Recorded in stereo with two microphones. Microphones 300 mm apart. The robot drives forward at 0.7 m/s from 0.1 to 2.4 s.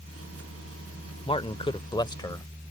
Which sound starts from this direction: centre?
A man speaking, at 1.2 s.